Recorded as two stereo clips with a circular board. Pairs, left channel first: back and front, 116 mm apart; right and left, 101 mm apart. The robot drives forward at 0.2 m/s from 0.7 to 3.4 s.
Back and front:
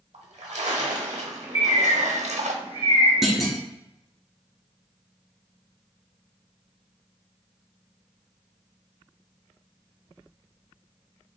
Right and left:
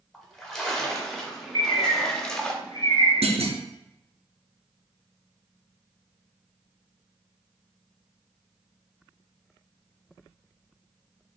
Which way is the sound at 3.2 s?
90° left.